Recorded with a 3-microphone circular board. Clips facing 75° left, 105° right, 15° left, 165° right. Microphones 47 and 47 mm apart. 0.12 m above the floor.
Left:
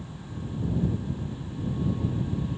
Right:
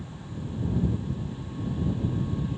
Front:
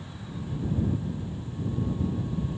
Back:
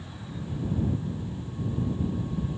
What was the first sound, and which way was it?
Only background noise.